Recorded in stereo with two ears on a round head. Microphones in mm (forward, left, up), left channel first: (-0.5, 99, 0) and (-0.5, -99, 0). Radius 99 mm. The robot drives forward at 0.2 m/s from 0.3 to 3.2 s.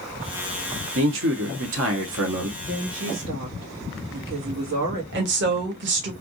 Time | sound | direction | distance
0.9 | a man speaking | 60° right (ahead or behind) | 1.2 m
2.6 | a woman speaking | 55° right (ahead or behind) | 1.3 m
5.1 | a woman speaking | 55° right (ahead or behind) | 0.9 m